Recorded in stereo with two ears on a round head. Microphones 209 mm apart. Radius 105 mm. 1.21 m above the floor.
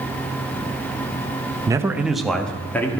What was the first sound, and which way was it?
A man speaking, 15° right (ahead or behind).